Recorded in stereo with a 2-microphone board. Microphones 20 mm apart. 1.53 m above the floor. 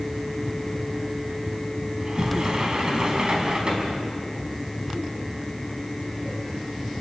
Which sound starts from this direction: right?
A sliding door, at 2.0 s.